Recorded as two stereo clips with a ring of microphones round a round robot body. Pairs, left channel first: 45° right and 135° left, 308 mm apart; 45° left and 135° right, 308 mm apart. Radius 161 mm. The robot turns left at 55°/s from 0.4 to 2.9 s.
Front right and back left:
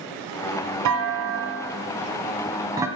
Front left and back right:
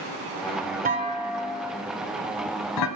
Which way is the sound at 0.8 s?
165° left.